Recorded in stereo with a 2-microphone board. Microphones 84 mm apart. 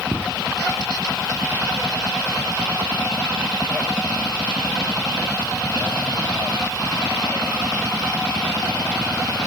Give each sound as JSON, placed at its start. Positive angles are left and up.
{"t": 0.1, "sound": "footsteps", "side_deg": -5, "distance_m": 1.7}